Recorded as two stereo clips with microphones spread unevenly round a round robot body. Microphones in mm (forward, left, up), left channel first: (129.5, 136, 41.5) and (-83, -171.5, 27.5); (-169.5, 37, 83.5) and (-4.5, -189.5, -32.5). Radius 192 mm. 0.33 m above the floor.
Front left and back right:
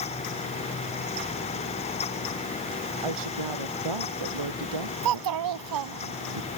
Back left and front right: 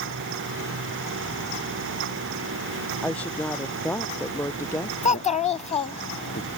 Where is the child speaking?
160° right.